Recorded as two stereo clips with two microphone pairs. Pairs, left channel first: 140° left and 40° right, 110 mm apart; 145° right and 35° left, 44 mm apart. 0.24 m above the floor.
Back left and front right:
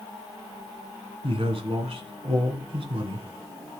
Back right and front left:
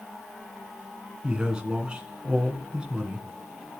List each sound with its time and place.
1.2 s a man speaking: 30° right, 2 m